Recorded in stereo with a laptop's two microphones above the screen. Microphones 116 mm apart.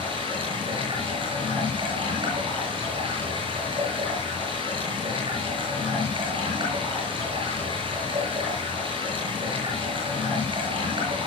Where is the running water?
45° right (ahead or behind), 7 m.